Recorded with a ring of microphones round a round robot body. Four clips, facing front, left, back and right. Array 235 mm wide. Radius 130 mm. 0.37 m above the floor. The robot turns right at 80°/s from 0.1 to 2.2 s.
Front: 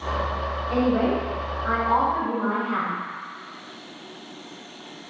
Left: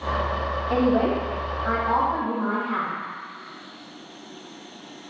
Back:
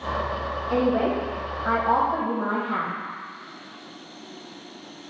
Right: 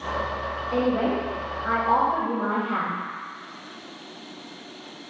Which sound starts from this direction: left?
A woman speaking, at 0.7 s.